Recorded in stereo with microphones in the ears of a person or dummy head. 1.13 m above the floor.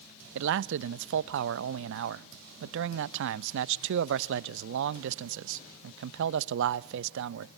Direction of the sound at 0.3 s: 70° right (ahead or behind).